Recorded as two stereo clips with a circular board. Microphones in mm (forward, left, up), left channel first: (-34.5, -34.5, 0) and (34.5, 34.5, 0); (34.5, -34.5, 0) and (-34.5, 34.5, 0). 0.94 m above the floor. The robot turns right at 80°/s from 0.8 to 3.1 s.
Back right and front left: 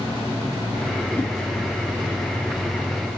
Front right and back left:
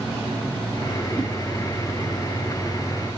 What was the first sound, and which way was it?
A whoosh, 55° right.